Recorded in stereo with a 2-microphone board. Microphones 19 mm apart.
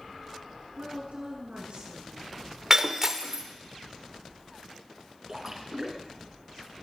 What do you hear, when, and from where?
0.8 s a woman speaking: 80° right, 6 m
2.7 s breaking glass: 30° right (ahead or behind), 1.0 m
5.3 s a splash: 20° right (ahead or behind), 1.9 m